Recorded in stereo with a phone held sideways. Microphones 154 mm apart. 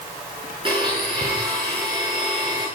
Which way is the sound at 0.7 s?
35° right (ahead or behind).